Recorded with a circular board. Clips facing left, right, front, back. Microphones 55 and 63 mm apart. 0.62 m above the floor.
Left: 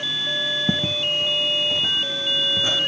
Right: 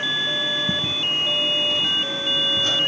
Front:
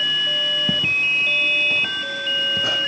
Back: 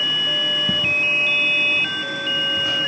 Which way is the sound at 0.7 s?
65° left.